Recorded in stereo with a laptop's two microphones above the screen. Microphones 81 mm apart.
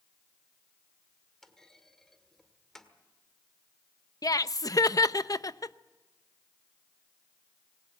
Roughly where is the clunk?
Centre.